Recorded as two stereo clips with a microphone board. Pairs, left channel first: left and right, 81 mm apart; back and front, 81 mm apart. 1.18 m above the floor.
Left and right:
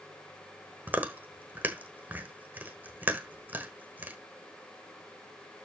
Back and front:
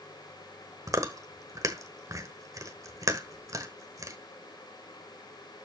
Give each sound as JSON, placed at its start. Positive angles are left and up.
{"t": 0.9, "sound": "chewing", "azimuth_deg": -30, "distance_m": 1.3}